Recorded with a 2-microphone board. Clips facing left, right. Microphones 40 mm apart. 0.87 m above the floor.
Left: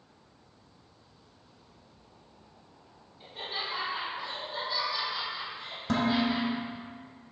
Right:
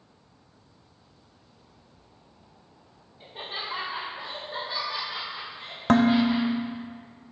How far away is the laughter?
About 1.9 m.